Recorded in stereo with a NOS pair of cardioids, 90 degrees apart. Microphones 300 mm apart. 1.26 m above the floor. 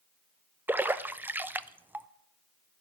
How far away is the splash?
About 0.6 m.